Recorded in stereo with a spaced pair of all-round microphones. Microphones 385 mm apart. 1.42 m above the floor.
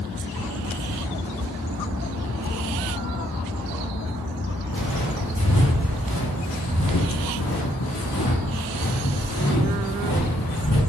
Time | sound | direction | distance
4.7 | footsteps | 55° left (ahead or behind) | 3.5 m